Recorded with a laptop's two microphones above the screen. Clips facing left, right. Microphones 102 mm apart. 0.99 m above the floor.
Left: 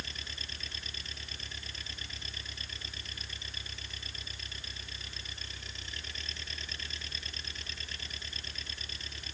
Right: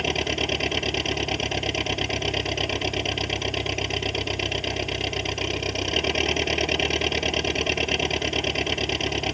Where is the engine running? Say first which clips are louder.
Right 21 dB; 70° right (ahead or behind).